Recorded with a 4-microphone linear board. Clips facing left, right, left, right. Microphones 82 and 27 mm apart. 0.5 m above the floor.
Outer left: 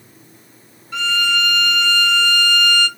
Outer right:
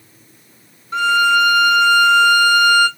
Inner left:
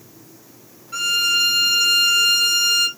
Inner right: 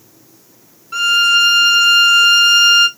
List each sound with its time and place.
0.9 s a violin: 40° right (ahead or behind), 1.8 m